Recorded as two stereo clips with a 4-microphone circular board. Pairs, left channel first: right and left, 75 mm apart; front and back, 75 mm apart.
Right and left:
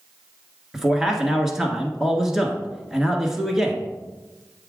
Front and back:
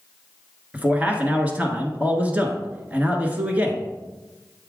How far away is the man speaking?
About 1.1 m.